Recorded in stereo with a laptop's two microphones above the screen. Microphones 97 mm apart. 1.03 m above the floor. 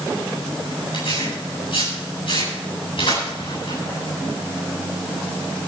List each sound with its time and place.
0.9 s tearing paper: 65° left (ahead or behind), 10 m